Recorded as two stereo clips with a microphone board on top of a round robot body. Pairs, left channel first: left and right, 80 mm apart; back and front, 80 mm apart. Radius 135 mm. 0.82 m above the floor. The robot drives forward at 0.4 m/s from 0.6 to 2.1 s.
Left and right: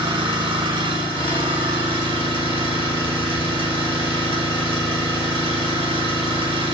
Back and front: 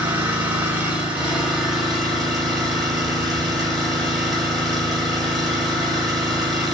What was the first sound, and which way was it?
An engine running, 65° right.